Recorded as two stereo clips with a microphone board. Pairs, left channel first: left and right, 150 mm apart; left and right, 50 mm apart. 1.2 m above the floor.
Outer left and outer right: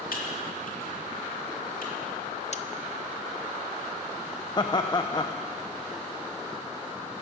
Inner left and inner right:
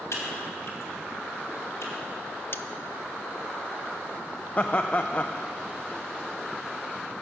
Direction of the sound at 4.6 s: 30° left (ahead or behind).